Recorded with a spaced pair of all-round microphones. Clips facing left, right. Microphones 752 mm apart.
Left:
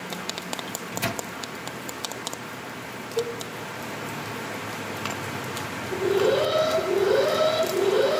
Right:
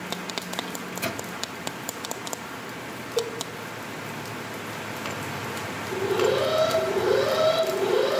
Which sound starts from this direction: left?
A microwave, at 0.7 s.